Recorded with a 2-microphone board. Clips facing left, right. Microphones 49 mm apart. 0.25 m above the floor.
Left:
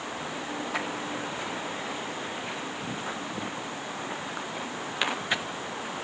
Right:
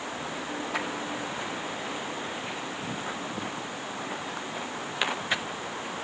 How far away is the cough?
No cough in this recording.